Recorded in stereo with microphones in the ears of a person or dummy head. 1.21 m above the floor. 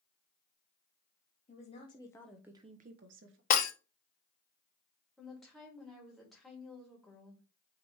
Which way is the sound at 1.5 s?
40° left (ahead or behind).